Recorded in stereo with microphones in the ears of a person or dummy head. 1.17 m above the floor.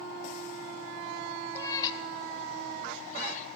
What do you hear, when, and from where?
1.6 s a cat meowing: 10° left (ahead or behind), 1.5 m; by 3.5 s 45° left (ahead or behind), 3.5 m